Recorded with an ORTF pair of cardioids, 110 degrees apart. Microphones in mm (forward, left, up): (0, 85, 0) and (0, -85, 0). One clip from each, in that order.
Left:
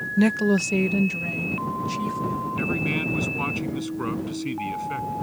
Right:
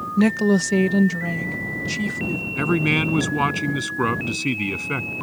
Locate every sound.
0.2 s a woman speaking: 5° right; by 2.5 s 40° right
2.6 s a man speaking: 50° right